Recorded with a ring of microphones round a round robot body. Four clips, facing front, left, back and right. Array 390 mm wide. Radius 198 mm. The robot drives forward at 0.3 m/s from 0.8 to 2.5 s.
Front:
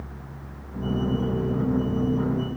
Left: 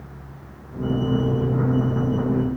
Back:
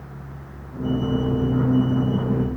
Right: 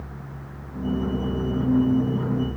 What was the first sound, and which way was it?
Only background noise.